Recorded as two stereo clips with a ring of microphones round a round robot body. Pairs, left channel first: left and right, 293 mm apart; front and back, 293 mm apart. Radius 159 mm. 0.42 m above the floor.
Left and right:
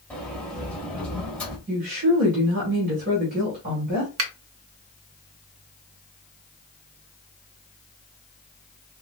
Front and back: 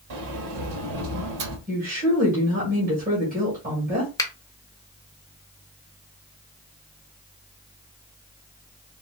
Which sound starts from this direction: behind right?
A woman speaking, at 1.7 s.